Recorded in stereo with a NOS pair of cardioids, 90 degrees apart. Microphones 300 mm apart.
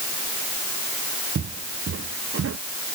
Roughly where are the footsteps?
Ahead right.